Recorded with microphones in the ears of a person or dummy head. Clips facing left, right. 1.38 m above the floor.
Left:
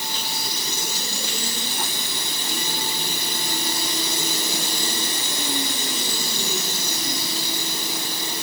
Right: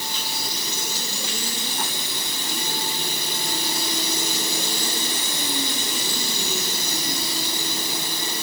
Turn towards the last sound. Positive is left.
No sound to turn to.